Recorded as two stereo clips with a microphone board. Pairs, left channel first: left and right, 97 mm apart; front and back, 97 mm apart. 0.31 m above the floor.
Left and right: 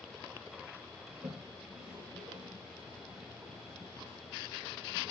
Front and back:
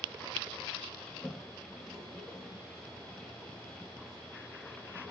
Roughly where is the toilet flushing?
Right.